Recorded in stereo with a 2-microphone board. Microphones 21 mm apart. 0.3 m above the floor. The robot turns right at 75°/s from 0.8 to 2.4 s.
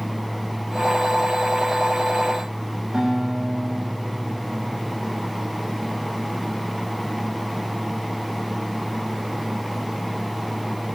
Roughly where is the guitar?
Right.